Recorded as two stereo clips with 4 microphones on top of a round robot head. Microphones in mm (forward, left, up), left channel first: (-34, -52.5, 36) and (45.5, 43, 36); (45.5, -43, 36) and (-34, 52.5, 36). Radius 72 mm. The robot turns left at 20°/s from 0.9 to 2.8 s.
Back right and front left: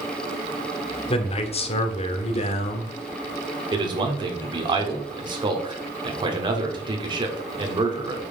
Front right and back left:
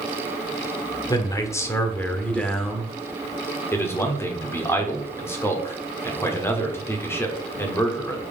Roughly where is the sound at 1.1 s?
Right.